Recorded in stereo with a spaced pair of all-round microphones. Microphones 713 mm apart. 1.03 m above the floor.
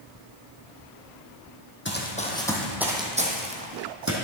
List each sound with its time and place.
1.9 s running footsteps: 15° left (ahead or behind), 1.6 m; by 4.1 s 25° right (ahead or behind), 1.8 m